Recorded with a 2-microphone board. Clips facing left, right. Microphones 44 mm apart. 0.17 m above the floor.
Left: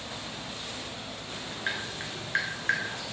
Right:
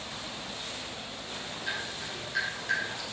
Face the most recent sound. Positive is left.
turn(degrees=50)  # may be behind; listen again after turning